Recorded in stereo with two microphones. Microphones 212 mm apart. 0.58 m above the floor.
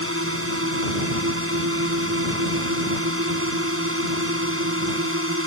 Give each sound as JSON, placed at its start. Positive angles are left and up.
{"t": 0.0, "sound": "a drone", "side_deg": -75}